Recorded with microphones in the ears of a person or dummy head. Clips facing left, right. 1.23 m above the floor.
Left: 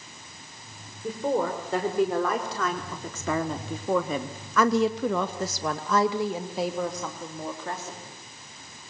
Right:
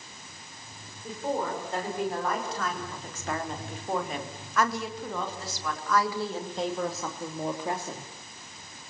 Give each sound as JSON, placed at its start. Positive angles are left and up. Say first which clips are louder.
{"t": 1.0, "sound": "a woman speaking", "louder": "left 5 dB", "side_deg": 65, "distance_m": 6.0}